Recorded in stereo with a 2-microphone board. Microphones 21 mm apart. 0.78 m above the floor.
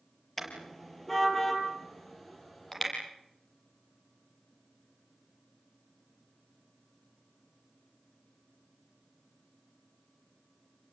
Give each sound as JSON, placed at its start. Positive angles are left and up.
{"t": 0.4, "sound": "a car horn", "side_deg": 10, "distance_m": 6.5}